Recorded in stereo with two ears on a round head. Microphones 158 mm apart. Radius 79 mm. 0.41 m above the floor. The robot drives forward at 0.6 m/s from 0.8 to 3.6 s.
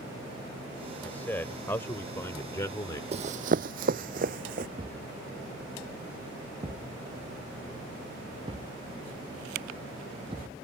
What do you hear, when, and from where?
1.0 s a man speaking: 10° left (ahead or behind); by 3.0 s 20° left (ahead or behind)
3.1 s running footsteps: 35° right (ahead or behind); by 4.7 s 50° right (ahead or behind)
4.8 s a thud: 30° right (ahead or behind)